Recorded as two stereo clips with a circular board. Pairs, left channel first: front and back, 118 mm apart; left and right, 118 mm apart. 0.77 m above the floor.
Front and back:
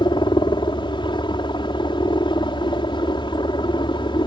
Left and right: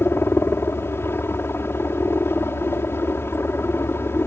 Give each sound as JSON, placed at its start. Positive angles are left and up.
{"t": 0.0, "sound": "a helicopter", "azimuth_deg": 25}